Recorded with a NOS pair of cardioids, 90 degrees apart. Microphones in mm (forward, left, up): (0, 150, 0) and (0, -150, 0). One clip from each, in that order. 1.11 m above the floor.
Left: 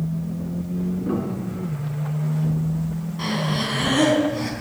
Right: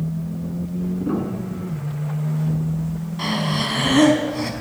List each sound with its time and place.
1.0 s a piano: 15° right, 3.5 m
3.2 s breathing: 25° right, 4 m